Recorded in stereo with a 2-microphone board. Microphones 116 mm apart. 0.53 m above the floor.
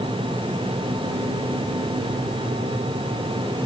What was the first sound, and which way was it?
Only background noise.